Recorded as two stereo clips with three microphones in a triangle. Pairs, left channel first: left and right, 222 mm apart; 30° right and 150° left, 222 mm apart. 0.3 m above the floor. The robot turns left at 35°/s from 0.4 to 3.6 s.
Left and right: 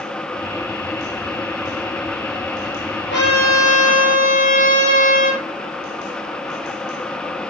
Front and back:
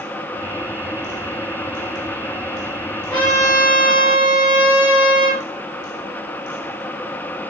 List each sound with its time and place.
3.1 s a trumpet: 60° left, 8 m; by 5.4 s 40° left, 8 m